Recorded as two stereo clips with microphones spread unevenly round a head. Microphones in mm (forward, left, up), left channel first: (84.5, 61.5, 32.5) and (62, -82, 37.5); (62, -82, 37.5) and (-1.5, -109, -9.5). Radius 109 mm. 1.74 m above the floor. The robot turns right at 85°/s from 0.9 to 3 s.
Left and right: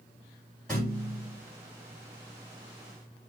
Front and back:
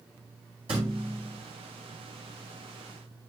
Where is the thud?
170° left, 3.5 m; by 1.4 s 150° right, 3.5 m.